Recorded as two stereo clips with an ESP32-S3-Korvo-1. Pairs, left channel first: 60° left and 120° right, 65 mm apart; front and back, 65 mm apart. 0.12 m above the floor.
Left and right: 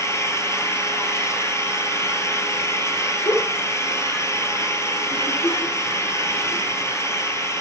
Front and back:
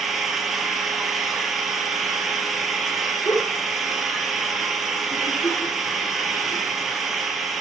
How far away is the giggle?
About 4.5 m.